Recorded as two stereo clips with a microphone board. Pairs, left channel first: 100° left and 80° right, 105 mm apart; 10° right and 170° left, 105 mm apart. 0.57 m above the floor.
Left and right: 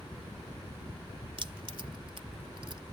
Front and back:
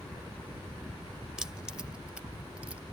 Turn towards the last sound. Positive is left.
turn(degrees=-115)